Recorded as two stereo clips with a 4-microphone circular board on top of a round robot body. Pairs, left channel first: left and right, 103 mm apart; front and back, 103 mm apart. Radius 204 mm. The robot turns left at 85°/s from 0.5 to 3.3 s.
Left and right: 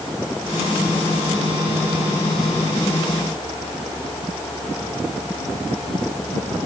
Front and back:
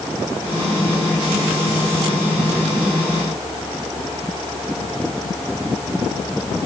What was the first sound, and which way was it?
Only background noise.